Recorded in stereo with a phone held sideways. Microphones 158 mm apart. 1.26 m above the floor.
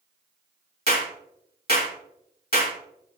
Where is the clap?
75° left (ahead or behind), 2.5 m.